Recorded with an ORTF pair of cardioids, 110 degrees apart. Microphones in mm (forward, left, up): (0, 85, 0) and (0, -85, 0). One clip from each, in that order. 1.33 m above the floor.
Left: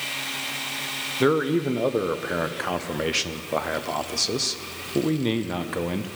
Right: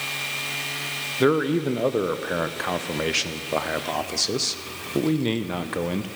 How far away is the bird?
No bird in this recording.